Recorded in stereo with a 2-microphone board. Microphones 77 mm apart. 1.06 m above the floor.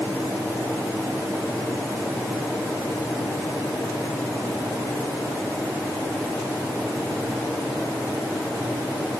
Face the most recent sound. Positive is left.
No sound to turn to.